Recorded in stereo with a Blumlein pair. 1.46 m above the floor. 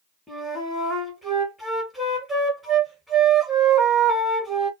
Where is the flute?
Straight ahead, 1.1 m.